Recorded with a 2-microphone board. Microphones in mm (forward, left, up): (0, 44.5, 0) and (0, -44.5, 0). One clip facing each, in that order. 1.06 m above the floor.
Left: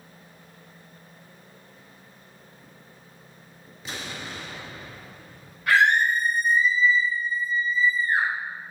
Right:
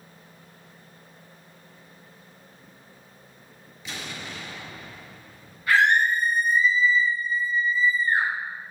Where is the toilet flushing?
No toilet flushing in this recording.